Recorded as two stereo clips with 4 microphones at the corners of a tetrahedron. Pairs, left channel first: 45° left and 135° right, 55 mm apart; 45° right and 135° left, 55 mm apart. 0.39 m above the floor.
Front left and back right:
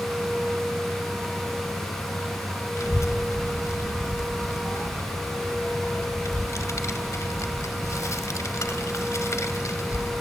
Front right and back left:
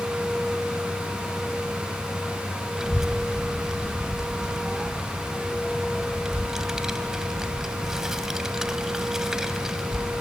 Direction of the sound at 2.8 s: 55° left.